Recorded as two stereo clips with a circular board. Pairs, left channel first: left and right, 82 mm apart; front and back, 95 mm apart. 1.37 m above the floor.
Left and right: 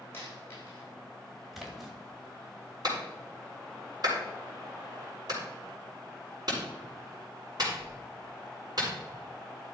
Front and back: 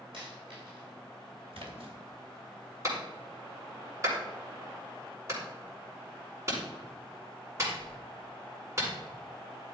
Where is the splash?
175° right, 3 m.